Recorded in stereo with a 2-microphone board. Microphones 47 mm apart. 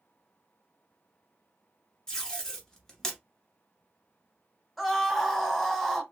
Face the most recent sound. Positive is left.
turn(degrees=5)  # may be behind; listen again after turning